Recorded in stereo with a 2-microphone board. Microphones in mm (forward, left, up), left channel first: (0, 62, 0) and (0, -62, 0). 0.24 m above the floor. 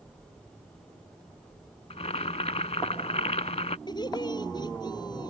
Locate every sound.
1.9 s boiling: 65° left (ahead or behind)
3.9 s laughter: 35° left (ahead or behind)